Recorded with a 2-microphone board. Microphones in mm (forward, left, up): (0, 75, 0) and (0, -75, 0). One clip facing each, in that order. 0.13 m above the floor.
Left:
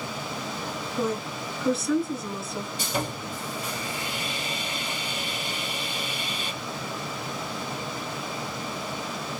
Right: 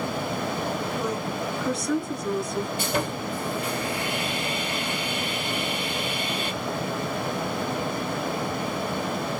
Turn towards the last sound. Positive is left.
turn(degrees=-60)  # may be behind; listen again after turning